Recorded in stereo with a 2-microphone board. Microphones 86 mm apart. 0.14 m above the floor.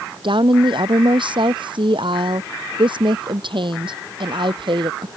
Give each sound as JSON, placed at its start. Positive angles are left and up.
{"t": 0.2, "sound": "a woman speaking", "side_deg": -70}